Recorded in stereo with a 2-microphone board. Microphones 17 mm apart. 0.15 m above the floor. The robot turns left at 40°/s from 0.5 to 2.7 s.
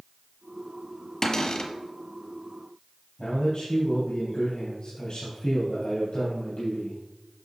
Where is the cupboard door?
25° left (ahead or behind), 1.2 m; by 1.7 s 45° left (ahead or behind), 1.2 m.